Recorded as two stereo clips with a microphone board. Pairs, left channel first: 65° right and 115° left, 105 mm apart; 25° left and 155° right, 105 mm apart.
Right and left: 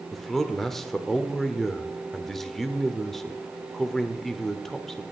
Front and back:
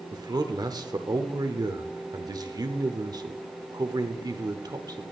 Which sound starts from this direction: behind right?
A man speaking, at 0.1 s.